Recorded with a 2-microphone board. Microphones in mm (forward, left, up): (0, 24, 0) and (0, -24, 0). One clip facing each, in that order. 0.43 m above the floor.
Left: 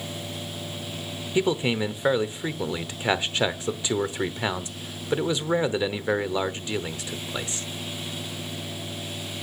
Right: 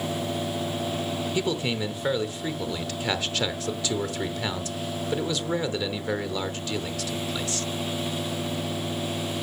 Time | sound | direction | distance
1.4 | a man speaking | 20° left (ahead or behind) | 0.9 m